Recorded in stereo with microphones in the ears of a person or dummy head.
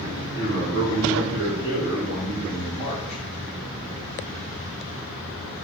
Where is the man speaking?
65° right (ahead or behind), 1.2 m; by 3.2 s 15° right (ahead or behind), 0.9 m.